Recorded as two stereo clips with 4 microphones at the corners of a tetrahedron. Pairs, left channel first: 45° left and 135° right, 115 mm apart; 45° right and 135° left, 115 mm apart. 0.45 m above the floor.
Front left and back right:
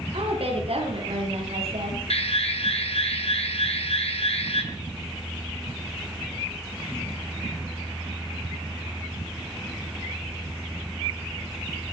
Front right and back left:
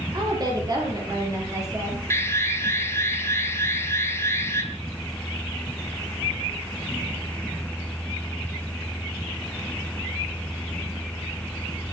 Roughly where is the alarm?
Ahead.